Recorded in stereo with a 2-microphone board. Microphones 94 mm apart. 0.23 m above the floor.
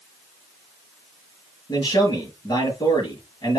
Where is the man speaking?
50° left (ahead or behind), 4 m.